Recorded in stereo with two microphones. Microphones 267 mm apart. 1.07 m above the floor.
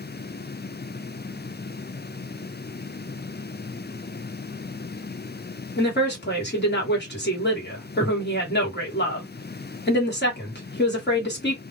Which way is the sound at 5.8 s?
40° left (ahead or behind).